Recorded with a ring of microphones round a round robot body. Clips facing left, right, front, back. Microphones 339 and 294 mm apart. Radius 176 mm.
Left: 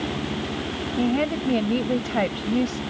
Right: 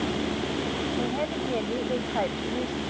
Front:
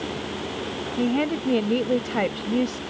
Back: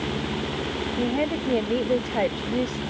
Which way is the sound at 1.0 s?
70° left.